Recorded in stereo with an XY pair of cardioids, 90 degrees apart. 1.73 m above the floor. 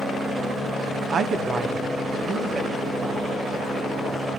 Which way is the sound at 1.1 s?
60° right.